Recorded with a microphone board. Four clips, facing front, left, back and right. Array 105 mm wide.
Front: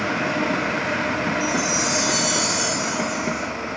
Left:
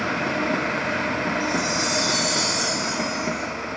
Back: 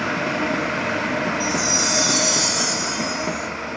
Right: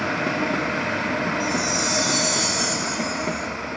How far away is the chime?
About 2.5 m.